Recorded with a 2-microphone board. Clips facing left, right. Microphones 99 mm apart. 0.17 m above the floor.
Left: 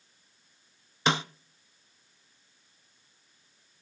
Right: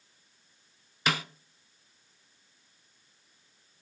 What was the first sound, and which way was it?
A snare drum, 25° left (ahead or behind).